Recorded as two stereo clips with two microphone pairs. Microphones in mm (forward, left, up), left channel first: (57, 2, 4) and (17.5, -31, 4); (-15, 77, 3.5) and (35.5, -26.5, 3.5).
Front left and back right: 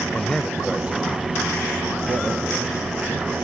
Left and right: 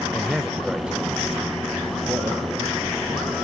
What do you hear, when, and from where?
0.1 s a man speaking: 35° left, 1.1 m; by 3.3 s 135° right, 3 m